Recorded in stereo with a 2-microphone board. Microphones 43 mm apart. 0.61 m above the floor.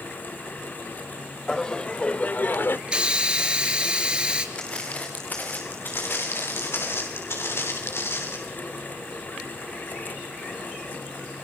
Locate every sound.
1.5 s laughter: 15° left (ahead or behind), 2 m; by 2.8 s 60° left (ahead or behind), 1.4 m
2.9 s a hiss: 25° right (ahead or behind), 3.5 m
4.5 s footsteps: 25° left (ahead or behind), 4.5 m; by 6.9 s 70° left (ahead or behind), 5 m
5.9 s footsteps: 65° left (ahead or behind), 8.5 m; by 8.4 s 75° left (ahead or behind), 8 m